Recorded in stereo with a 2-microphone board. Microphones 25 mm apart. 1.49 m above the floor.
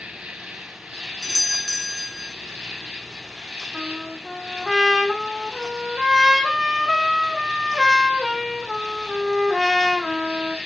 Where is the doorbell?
10° right (ahead or behind), 0.6 m.